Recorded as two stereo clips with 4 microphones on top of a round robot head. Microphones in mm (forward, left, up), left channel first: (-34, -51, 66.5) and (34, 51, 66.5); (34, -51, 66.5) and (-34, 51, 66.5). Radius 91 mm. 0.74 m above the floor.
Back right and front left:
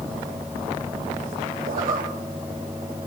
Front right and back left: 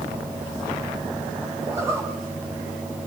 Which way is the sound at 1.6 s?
55° left.